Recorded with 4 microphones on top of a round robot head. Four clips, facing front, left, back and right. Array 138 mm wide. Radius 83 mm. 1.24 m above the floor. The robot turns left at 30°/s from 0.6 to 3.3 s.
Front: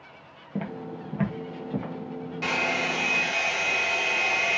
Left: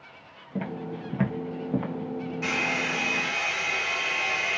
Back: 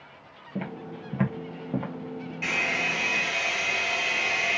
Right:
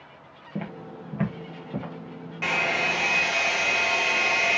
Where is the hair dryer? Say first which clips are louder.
Right 5 dB, front 3 dB; 60° right, 0.7 m; by 4.6 s 85° right, 0.7 m.